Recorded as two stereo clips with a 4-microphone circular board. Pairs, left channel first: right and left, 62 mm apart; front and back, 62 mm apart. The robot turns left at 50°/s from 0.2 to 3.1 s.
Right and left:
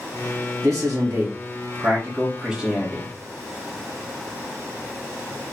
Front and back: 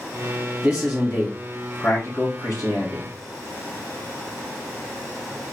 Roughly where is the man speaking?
Left.